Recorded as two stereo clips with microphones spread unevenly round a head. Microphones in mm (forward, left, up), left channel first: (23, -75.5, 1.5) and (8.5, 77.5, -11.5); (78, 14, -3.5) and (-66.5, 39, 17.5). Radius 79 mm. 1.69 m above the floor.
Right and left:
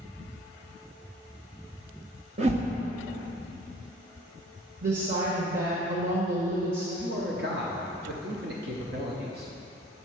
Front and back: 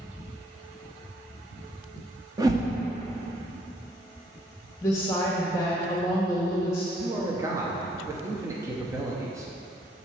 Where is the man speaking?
110° left, 0.8 m.